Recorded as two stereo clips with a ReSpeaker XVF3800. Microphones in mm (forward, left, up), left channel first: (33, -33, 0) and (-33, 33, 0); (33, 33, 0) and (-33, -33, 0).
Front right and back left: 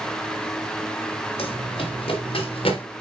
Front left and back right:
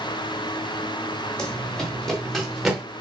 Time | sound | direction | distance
1.4 | running footsteps | 40° right | 4 m